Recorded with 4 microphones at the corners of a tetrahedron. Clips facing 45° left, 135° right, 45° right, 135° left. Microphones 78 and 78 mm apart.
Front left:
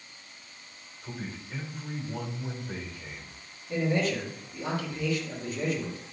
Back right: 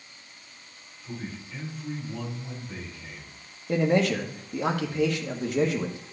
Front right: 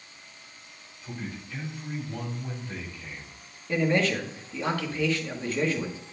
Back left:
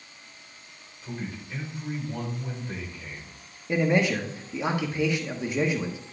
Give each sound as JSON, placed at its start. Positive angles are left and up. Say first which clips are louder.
{"t": 1.0, "sound": "a man speaking", "louder": "back right 1 dB, back left 2 dB", "azimuth_deg": 75, "distance_m": 4.0}
{"t": 3.7, "sound": "a man speaking", "louder": "back right 5 dB, back left 1 dB", "azimuth_deg": -150, "distance_m": 1.4}